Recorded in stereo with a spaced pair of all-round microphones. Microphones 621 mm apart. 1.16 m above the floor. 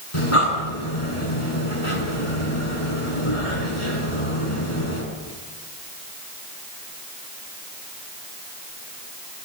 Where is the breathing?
55° left (ahead or behind), 6.5 m.